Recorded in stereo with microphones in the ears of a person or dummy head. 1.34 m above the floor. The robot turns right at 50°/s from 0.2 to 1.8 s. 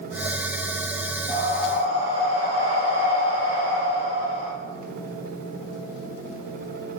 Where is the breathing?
30° left (ahead or behind), 1.7 m; by 4.5 s 5° left (ahead or behind), 1.7 m.